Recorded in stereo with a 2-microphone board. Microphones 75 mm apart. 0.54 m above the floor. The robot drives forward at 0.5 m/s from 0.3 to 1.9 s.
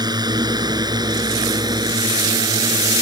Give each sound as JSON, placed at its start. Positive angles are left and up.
{"t": 0.0, "sound": "a drone", "side_deg": -70}